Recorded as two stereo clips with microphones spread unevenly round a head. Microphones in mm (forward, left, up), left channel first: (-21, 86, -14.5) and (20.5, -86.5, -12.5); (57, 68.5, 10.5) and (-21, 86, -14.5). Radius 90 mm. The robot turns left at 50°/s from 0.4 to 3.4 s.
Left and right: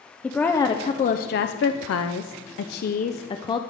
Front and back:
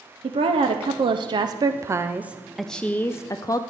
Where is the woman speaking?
175° right, 0.6 m; by 3.6 s 35° left, 0.6 m.